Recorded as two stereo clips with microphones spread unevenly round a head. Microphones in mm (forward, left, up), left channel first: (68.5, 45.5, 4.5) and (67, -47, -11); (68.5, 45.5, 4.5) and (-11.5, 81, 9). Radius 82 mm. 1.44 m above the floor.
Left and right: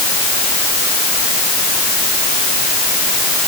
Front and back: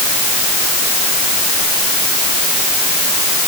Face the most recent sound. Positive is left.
No sound to turn to.